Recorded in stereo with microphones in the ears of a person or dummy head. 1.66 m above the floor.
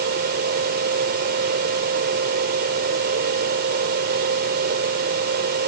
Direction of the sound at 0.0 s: 55° right (ahead or behind).